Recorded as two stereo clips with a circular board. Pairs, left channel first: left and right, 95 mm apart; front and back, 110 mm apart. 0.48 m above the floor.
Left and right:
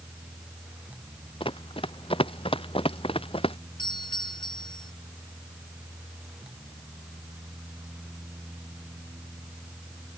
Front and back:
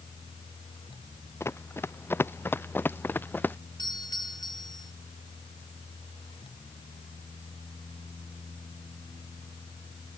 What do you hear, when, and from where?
1.4 s running footsteps: 65° left; by 3.6 s 75° left
3.8 s a doorbell: 50° left